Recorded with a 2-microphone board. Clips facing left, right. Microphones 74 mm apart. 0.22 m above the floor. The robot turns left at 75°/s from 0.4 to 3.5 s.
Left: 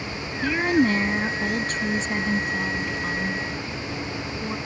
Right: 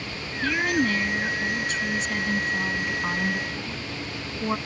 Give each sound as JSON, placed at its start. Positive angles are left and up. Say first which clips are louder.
{"t": 0.4, "sound": "a woman speaking", "louder": "left 3 dB", "azimuth_deg": 165}